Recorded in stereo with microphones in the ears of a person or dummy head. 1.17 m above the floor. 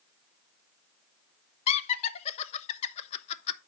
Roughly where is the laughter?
Left.